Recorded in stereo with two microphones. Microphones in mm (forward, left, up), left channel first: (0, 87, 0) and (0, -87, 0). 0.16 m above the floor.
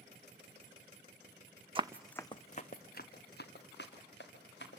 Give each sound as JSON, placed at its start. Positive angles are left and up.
{"t": 1.8, "sound": "running footsteps", "side_deg": -30, "distance_m": 0.6}